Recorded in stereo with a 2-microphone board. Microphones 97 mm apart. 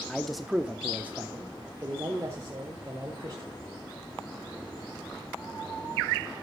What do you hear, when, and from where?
0.1 s a man speaking: 10° left (ahead or behind), 0.7 m; by 3.5 s 35° right (ahead or behind), 2 m